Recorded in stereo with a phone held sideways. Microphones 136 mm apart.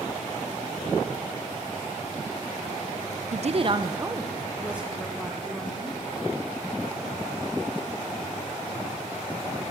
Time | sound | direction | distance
3.3 | a woman speaking | 60° right (ahead or behind) | 0.5 m